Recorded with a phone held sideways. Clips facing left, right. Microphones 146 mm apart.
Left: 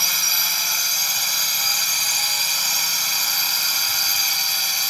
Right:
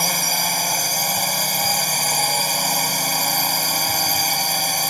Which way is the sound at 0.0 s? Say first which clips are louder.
Right 10 dB; 50° right (ahead or behind).